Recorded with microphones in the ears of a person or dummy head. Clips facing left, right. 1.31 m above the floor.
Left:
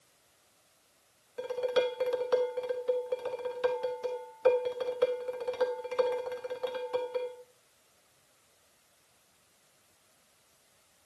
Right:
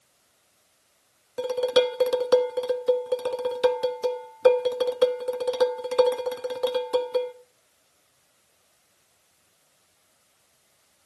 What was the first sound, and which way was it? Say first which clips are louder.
Dishes clattering: right 7 dB; 60° right (ahead or behind).